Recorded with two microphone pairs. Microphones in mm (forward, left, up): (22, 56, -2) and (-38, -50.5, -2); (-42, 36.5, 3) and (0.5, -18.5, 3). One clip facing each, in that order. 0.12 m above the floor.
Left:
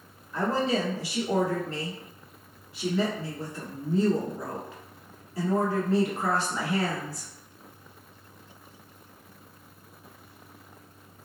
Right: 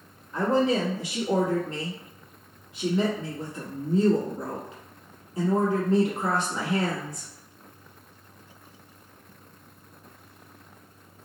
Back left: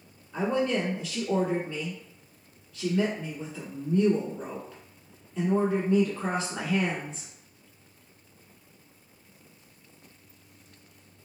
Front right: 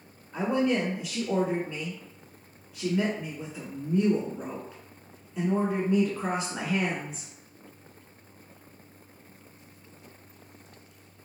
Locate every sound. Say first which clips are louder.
0.3 s a woman speaking: right 3 dB, front right 1 dB; 115° right, 1.1 m